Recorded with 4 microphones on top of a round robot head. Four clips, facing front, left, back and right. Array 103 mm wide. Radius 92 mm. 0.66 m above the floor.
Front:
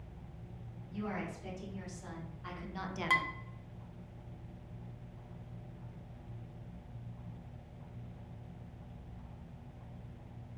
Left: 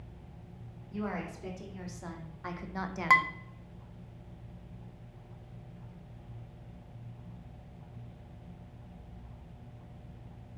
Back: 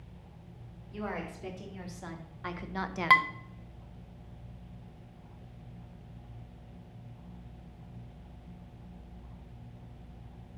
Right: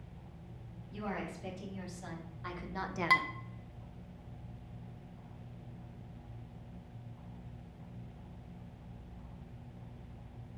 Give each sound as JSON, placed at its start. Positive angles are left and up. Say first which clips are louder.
{"t": 0.9, "sound": "a woman speaking", "louder": "left 3 dB, back 2 dB", "azimuth_deg": 145, "distance_m": 3.0}
{"t": 3.1, "sound": "dishes clattering", "louder": "left 6 dB, back 9 dB", "azimuth_deg": 145, "distance_m": 0.6}